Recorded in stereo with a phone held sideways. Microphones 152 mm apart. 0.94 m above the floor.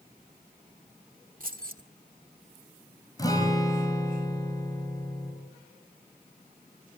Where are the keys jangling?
65° right (ahead or behind), 1.7 m.